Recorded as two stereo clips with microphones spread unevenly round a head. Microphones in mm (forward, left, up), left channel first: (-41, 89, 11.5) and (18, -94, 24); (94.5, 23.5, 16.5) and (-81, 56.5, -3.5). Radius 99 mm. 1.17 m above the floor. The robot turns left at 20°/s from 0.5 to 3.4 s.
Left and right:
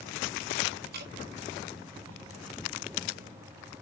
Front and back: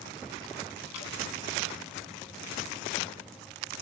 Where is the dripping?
30° right, 6.5 m; by 1.1 s 35° right, 6.5 m.